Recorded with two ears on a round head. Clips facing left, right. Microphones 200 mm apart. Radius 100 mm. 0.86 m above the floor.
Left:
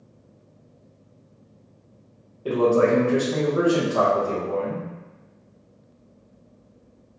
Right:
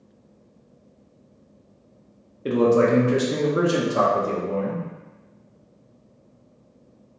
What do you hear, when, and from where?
2.5 s a man speaking: 25° right (ahead or behind), 0.6 m